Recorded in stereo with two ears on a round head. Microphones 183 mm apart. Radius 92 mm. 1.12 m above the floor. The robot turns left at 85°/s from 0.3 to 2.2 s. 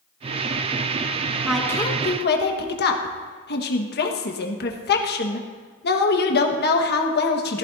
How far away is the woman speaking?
About 1.4 m.